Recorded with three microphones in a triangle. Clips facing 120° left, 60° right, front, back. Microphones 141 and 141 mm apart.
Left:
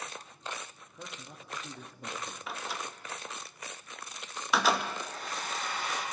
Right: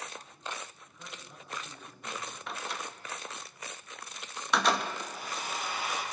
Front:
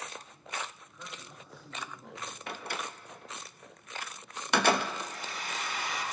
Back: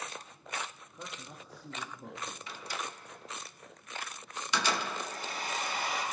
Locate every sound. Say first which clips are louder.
0.9 s a man speaking: left 3 dB, back 2 dB; 125° left, 1.5 m
2.5 s a door slam: even, front 6 dB; 30° left, 0.7 m
5.0 s a hair dryer: even, back 1 dB; 140° right, 5 m